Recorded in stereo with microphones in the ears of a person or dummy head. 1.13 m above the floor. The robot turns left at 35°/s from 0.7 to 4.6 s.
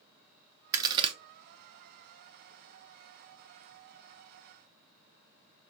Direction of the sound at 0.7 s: 20° right (ahead or behind).